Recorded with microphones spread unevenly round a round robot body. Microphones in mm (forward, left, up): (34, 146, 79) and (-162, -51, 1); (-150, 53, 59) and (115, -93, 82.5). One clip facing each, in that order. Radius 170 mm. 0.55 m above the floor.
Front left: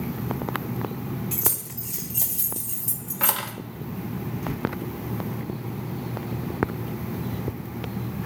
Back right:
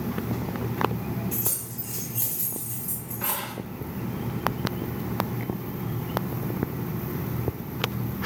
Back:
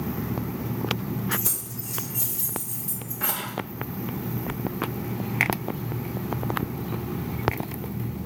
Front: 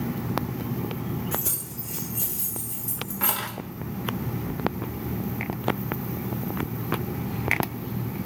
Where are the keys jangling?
75° left, 1.7 m; by 3.5 s 35° left, 0.7 m.